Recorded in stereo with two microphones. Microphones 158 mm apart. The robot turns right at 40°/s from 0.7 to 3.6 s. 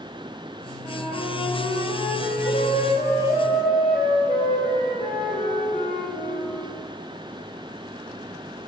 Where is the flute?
10° left, 1.7 m; by 6.5 s 120° left, 1.7 m.